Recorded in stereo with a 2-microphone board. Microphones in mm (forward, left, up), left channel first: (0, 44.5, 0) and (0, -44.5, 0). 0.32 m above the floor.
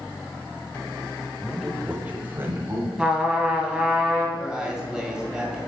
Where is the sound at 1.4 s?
5° left (ahead or behind), 1.0 m; by 2.9 s 25° right (ahead or behind), 2 m.